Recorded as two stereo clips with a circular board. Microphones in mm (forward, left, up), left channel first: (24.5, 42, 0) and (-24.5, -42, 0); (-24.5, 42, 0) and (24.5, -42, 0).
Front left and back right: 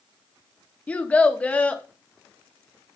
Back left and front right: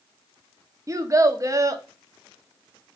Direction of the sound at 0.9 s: 15° right.